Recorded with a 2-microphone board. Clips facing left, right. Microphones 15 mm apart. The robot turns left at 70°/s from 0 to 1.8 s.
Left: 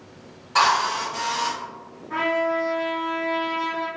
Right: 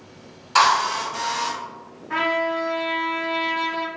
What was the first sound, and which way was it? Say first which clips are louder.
A drill: right 2 dB; 125° right.